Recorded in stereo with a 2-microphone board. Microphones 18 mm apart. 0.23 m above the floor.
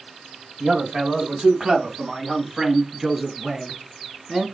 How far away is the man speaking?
About 2.5 m.